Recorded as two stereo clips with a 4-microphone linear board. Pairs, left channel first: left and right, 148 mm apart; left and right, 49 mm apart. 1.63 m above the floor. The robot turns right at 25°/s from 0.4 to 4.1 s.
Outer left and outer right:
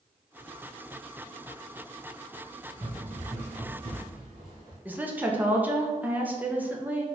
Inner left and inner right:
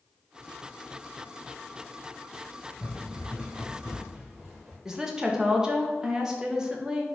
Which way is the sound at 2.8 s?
15° right (ahead or behind).